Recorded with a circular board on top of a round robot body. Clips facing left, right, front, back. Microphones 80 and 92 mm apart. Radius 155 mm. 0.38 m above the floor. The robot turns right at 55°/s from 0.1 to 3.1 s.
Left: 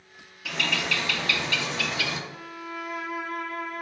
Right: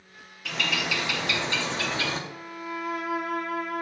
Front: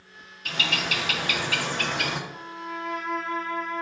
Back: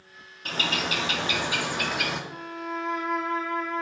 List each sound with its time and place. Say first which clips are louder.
0.5 s a bird: even, back 1 dB; 175° left, 0.8 m; by 2.2 s 85° right, 0.8 m
2.3 s a violin: right 2 dB, back 2 dB; 140° right, 0.7 m; by 3.8 s 95° right, 0.7 m